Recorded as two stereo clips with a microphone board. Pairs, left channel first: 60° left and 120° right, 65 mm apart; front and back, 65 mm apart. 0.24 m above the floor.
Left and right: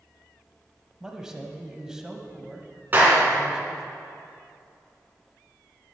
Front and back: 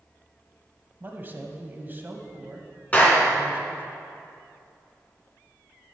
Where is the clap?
65° right, 2.5 m.